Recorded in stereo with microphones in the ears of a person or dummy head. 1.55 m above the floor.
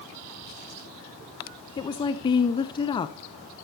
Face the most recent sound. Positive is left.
turn(degrees=20)  # may be behind; listen again after turning